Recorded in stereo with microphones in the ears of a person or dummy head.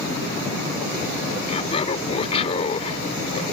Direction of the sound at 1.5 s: 30° left (ahead or behind).